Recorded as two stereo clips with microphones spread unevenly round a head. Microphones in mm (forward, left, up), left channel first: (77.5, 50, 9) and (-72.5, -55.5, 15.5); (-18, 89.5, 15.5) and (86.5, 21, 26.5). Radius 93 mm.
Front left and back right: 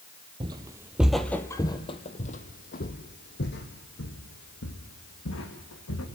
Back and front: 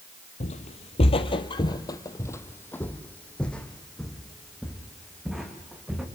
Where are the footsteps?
160° left, 1.8 m; by 6.1 s 50° left, 5.5 m.